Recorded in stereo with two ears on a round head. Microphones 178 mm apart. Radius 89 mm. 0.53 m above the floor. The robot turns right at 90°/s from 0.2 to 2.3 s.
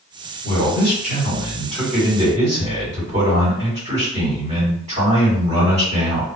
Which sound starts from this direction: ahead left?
A man speaking, at 0.4 s.